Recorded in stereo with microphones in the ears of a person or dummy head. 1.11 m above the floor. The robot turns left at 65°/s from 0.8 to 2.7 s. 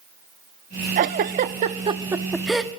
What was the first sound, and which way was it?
A giggle, 40° right (ahead or behind).